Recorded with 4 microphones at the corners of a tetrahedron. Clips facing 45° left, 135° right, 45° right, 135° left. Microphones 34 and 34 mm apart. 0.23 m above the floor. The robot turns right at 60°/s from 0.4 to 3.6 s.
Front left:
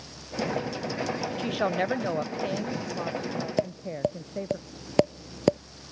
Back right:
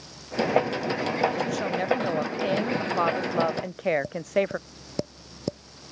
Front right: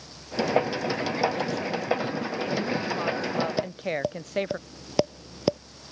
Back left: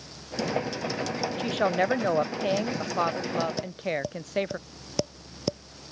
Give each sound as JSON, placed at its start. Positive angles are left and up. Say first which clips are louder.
{"t": 1.4, "sound": "a woman speaking", "louder": "even, back left 4 dB", "azimuth_deg": 95}
{"t": 3.6, "sound": "tapping", "louder": "back right 2 dB, front right 2 dB", "azimuth_deg": 20}